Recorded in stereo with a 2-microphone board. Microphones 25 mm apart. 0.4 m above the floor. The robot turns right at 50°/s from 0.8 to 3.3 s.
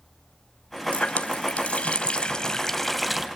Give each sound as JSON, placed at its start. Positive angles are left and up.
{"t": 0.9, "sound": "a running tap", "azimuth_deg": 70, "distance_m": 1.6}